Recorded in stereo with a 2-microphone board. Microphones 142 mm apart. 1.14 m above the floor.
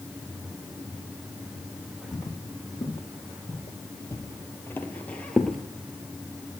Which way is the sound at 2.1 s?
30° left (ahead or behind).